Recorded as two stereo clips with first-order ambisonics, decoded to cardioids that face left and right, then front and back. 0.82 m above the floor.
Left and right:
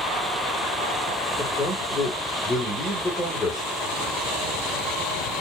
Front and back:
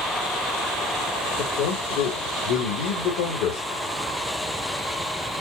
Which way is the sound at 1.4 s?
15° left.